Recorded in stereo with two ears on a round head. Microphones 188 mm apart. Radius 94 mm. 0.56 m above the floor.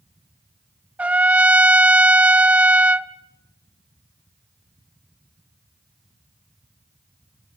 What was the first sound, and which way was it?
A trumpet, 5° right (ahead or behind).